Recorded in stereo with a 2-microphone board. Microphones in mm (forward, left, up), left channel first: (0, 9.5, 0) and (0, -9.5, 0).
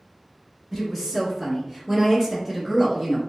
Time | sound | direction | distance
0.7 | a woman speaking | 5° right (ahead or behind) | 1.5 m